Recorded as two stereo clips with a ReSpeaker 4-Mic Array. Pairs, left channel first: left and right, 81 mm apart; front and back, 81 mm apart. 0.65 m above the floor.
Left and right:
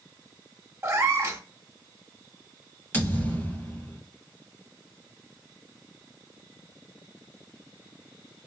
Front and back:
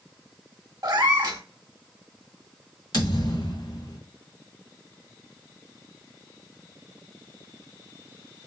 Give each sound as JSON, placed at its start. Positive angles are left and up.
{"t": 0.8, "sound": "a cat meowing", "azimuth_deg": -145, "distance_m": 0.8}
{"t": 2.9, "sound": "a thud", "azimuth_deg": 25, "distance_m": 1.9}